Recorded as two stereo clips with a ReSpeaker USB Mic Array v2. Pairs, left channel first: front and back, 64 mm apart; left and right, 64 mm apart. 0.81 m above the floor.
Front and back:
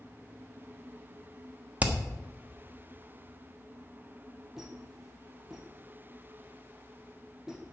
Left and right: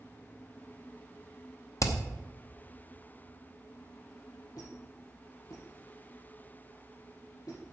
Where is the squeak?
95° left, 4.5 m.